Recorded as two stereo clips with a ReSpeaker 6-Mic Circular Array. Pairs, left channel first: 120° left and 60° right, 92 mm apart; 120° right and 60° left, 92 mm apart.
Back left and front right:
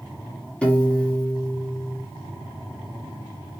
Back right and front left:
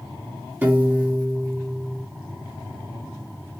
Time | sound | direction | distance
0.6 | a piano | 65° left | 0.9 m